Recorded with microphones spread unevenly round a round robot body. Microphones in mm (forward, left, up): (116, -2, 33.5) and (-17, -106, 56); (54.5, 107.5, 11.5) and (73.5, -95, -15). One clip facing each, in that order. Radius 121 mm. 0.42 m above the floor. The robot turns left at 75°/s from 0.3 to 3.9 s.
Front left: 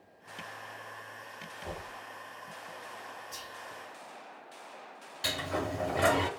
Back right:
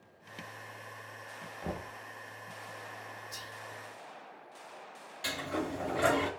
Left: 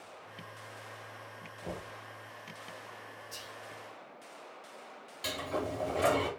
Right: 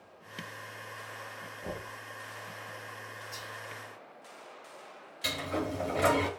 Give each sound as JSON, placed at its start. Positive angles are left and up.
{"t": 1.6, "sound": "knocking", "azimuth_deg": -130, "distance_m": 0.8}
{"t": 3.3, "sound": "whispering", "azimuth_deg": 145, "distance_m": 1.6}
{"t": 5.2, "sound": "a sliding door", "azimuth_deg": -10, "distance_m": 1.0}